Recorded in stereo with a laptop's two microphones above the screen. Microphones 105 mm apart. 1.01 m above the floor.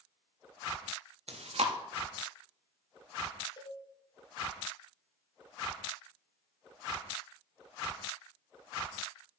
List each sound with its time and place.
1.3 s chewing: 70° right (ahead or behind), 0.6 m
3.6 s a cowbell: 40° left (ahead or behind), 1.0 m